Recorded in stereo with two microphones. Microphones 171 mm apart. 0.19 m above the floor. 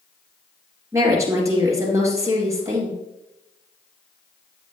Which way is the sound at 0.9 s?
15° right (ahead or behind).